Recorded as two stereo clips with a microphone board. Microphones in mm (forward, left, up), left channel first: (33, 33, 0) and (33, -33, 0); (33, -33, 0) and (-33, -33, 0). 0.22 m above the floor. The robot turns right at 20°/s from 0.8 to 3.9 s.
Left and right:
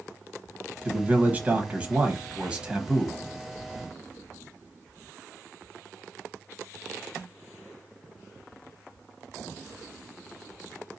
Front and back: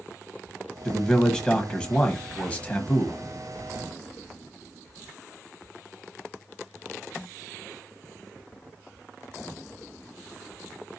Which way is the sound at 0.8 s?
70° right.